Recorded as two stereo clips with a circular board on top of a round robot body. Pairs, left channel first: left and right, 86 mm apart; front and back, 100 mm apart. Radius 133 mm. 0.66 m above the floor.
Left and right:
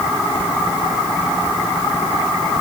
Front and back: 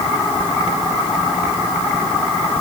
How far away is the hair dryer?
No hair dryer in this recording.